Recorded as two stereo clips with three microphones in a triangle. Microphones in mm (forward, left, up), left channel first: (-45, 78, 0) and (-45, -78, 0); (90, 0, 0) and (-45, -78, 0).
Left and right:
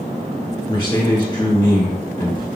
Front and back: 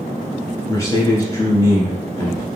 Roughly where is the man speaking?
Left.